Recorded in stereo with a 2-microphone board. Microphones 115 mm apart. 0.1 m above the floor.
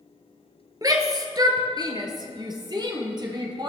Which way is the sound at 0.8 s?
35° right (ahead or behind).